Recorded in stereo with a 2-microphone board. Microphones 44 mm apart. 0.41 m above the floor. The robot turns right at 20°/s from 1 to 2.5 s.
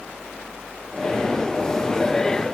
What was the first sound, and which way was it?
Only background noise.